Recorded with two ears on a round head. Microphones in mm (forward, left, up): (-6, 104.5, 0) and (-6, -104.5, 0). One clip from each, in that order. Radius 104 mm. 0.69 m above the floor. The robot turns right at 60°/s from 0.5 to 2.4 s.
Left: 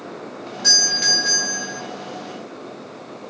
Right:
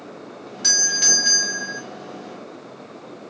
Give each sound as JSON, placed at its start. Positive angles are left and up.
{"t": 0.6, "sound": "a doorbell", "side_deg": -20, "distance_m": 1.2}